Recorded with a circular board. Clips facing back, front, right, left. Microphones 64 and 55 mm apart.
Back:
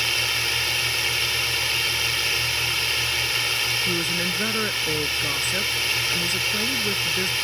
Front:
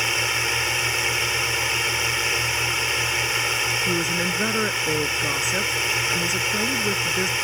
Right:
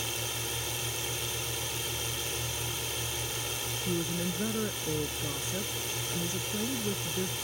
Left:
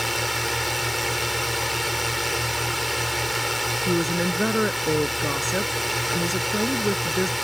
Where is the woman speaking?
80° left.